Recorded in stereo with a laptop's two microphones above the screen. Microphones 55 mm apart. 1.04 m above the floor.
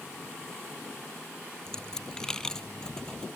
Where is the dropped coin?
10° left (ahead or behind).